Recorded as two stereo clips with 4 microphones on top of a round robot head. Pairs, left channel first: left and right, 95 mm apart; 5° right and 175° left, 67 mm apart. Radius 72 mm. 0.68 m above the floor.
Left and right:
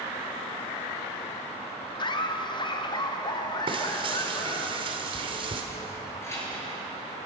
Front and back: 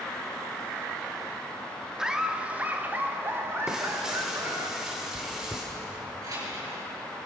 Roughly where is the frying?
Right.